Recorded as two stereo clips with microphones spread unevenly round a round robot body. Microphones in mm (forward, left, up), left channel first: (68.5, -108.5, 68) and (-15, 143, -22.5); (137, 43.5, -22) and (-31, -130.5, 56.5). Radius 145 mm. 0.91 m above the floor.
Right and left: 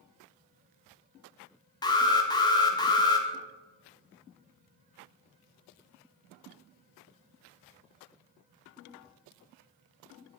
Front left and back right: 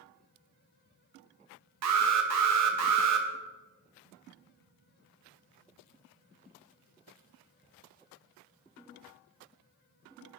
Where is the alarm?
160° right, 1.5 m.